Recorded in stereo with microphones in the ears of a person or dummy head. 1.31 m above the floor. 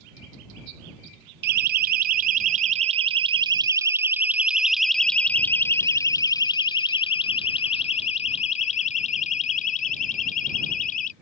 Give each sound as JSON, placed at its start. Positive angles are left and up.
{"t": 1.4, "sound": "a siren", "side_deg": -55}